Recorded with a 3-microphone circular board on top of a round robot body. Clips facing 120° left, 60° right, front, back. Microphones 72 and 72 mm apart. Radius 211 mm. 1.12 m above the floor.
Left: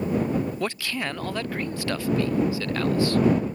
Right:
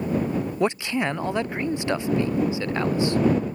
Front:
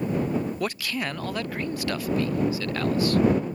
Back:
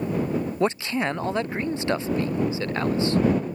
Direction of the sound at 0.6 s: 120° right.